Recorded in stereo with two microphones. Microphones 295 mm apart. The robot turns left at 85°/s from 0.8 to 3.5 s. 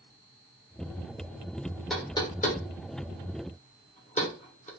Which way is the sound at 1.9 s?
Centre (ahead or behind).